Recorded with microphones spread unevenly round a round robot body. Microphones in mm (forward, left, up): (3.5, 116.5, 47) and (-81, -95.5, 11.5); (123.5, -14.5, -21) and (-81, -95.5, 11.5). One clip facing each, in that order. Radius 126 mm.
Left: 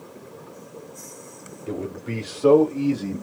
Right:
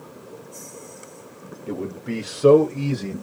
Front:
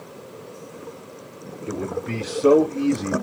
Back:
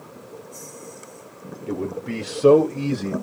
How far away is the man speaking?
About 1.3 m.